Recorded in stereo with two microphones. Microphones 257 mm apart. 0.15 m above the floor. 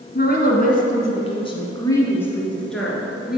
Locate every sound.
0.1 s a woman speaking: 40° left (ahead or behind), 1.3 m; by 3.4 s 5° right (ahead or behind), 2 m